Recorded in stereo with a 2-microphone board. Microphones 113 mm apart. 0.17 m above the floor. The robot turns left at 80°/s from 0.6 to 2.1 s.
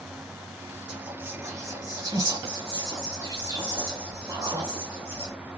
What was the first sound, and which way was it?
Whispering, 5° right (ahead or behind).